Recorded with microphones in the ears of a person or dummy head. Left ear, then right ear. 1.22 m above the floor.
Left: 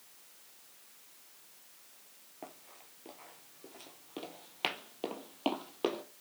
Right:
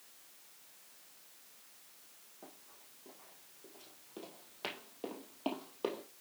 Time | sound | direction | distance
2.4 | running footsteps | 50° left (ahead or behind) | 1.8 m